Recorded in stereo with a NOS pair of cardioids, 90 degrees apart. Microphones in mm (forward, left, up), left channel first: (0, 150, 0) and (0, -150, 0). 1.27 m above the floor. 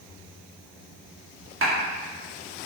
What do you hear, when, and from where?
1.6 s a clap: 45° right, 1.9 m